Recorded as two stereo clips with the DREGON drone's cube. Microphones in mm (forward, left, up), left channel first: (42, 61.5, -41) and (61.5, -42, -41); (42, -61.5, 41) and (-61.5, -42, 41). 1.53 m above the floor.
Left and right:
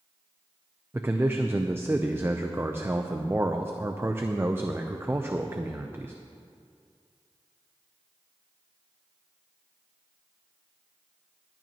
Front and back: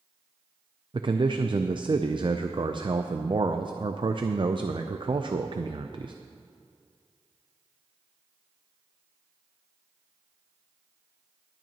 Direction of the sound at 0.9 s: 145° right.